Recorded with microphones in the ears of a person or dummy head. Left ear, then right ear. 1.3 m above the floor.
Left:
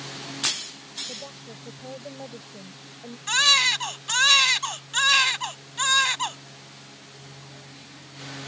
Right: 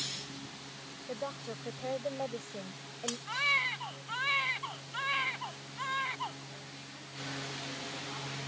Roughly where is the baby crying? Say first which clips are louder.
Left 12 dB; left.